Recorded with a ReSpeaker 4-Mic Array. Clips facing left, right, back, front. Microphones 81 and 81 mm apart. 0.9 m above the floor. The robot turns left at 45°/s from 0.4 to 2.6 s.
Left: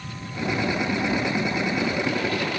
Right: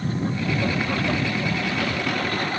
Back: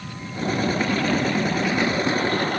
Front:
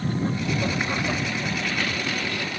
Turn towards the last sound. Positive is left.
turn(degrees=-140)